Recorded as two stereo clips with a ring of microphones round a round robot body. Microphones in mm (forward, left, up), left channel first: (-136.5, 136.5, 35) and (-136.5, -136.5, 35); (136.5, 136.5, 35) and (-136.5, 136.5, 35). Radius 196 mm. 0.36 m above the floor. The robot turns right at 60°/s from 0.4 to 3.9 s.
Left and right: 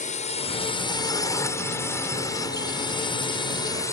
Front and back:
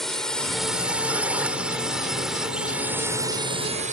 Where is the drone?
85° left; by 3.9 s 155° left.